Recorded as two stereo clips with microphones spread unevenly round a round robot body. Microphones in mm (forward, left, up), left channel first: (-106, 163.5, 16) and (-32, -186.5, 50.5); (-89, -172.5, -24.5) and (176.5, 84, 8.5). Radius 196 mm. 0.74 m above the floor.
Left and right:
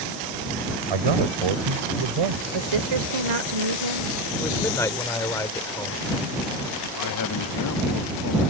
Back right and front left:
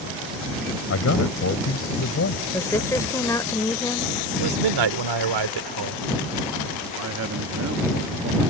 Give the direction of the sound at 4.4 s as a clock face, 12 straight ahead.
11 o'clock.